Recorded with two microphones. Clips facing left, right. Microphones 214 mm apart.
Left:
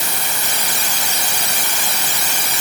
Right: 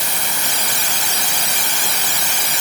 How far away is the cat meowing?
I don't hear a cat meowing.